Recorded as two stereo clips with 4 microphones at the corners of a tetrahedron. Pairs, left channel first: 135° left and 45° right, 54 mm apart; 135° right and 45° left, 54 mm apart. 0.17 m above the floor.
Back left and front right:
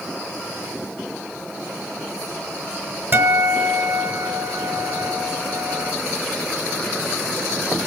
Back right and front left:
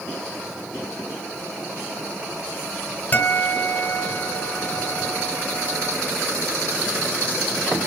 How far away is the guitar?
About 0.6 m.